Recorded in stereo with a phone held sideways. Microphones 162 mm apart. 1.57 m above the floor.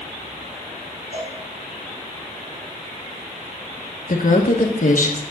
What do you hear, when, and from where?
1.1 s a cowbell: 70° right (ahead or behind), 6 m
4.1 s a woman speaking: 60° left (ahead or behind), 1.2 m